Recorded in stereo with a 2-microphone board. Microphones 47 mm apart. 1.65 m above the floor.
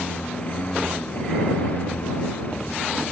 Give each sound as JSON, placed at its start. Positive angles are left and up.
{"t": 0.0, "sound": "a lawn mower", "side_deg": 30}